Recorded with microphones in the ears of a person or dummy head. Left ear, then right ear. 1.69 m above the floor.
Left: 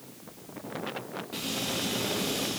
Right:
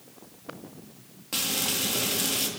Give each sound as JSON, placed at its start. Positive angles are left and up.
{"t": 1.3, "sound": "frying", "side_deg": -60, "distance_m": 3.5}